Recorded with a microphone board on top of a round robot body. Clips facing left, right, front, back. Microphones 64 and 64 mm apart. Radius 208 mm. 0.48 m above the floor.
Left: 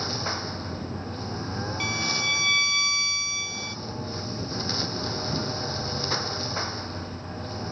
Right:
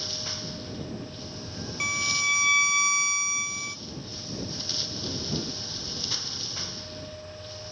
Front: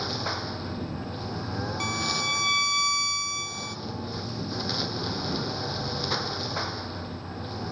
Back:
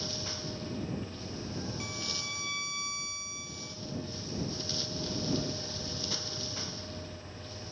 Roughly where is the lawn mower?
Ahead left.